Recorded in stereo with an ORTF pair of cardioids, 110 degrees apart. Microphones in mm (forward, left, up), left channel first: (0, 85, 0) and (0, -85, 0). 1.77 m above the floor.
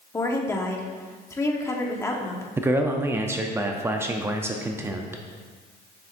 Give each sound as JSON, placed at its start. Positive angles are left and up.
{"t": 0.1, "sound": "a woman speaking", "azimuth_deg": 15, "distance_m": 1.3}
{"t": 2.6, "sound": "a man speaking", "azimuth_deg": -15, "distance_m": 0.6}